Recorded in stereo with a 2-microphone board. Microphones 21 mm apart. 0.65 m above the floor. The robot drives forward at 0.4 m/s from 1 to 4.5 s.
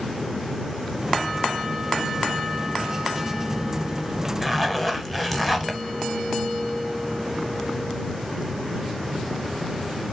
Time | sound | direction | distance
4.4 | a zipper | 5° left (ahead or behind) | 0.6 m